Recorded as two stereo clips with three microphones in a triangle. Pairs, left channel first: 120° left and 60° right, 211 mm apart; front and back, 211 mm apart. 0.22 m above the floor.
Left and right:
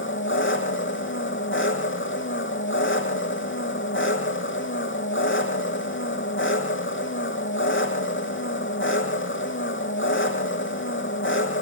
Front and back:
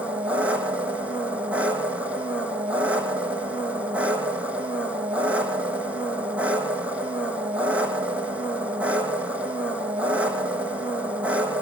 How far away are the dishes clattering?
No dishes clattering in this recording.